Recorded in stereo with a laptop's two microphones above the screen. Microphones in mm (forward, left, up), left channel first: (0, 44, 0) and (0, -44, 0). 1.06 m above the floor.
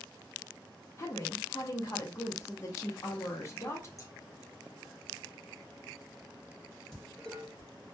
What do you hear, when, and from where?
1.0 s a woman speaking: 35° left (ahead or behind), 0.5 m
4.0 s scissors: 40° left (ahead or behind), 0.8 m
6.9 s dishes clattering: 5° left (ahead or behind), 1.2 m